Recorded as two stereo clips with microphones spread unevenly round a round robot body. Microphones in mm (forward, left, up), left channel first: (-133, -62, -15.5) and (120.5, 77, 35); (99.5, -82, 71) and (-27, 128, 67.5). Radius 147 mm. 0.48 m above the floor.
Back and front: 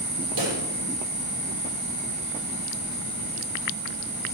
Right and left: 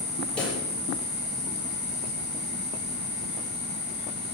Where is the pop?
25° left, 9.5 m.